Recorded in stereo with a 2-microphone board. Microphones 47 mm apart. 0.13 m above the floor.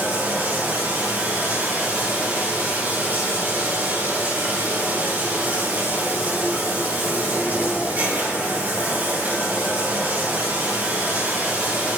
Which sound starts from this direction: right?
Running water, at 0.0 s.